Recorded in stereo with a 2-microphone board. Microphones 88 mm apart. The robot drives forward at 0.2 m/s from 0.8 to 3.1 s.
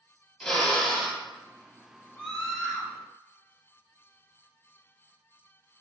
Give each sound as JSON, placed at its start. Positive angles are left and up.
{"t": 0.4, "sound": "a drill", "side_deg": 10, "distance_m": 0.7}
{"t": 2.2, "sound": "a scream", "side_deg": 15, "distance_m": 1.1}